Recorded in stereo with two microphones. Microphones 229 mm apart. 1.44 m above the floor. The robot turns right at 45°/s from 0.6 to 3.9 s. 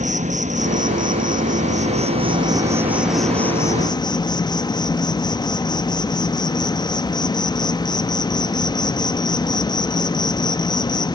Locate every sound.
0.0 s an insect: 115° right, 0.9 m; by 11.2 s 35° left, 0.9 m